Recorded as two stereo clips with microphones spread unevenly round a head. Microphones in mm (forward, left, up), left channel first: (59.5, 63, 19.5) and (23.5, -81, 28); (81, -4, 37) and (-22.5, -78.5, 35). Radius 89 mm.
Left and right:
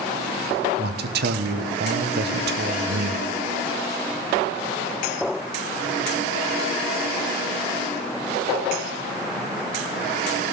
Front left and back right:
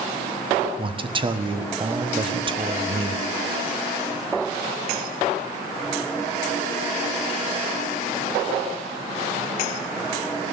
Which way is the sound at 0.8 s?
95° right.